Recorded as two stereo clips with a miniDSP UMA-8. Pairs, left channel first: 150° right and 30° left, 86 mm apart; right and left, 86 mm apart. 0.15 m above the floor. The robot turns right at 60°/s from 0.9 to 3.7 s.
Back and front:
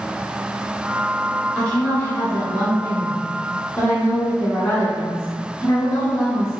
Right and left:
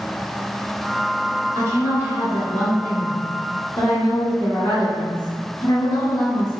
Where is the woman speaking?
120° left, 1.4 m; by 6.6 s 110° right, 1.4 m.